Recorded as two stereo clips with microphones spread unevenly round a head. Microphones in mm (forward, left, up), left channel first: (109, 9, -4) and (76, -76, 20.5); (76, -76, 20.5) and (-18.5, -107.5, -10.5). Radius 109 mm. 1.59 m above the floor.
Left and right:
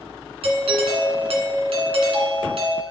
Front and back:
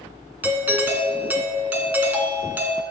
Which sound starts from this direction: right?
A doorbell, at 0.4 s.